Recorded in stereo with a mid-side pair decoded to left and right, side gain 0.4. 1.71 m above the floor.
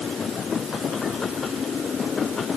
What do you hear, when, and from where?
Only background noise.